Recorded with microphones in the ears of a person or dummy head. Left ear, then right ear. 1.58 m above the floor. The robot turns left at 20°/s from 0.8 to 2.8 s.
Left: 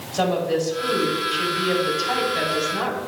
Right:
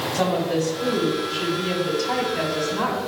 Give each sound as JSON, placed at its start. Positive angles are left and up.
{"t": 0.1, "sound": "a woman speaking", "azimuth_deg": 90, "distance_m": 4.5}